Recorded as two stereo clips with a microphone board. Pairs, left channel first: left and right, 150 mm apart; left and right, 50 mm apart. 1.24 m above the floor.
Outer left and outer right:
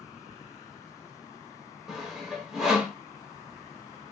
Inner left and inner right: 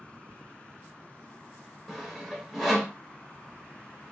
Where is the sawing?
5° right (ahead or behind), 1.1 m.